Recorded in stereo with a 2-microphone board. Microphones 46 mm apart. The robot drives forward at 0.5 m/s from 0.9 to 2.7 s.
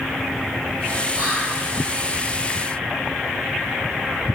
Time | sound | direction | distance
1.1 | whispering | 25° right (ahead or behind) | 0.7 m